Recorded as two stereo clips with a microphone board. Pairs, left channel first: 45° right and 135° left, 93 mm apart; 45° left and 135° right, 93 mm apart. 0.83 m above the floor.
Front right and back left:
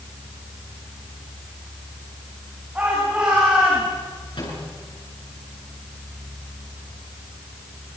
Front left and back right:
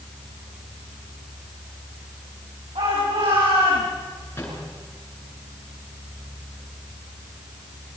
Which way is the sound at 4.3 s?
20° right.